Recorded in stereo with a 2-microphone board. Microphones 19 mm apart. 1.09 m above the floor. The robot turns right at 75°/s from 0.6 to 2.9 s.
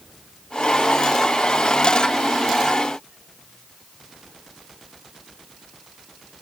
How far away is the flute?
No flute in this recording.